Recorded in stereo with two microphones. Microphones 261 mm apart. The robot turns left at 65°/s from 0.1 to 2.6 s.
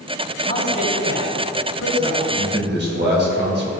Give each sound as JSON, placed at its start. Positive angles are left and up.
{"t": 0.5, "sound": "a man speaking", "side_deg": 30, "distance_m": 3.5}
{"t": 2.2, "sound": "a man speaking", "side_deg": -60, "distance_m": 2.5}